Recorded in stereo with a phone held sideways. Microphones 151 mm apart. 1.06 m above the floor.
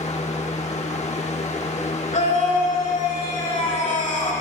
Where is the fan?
50° left (ahead or behind), 1.1 m.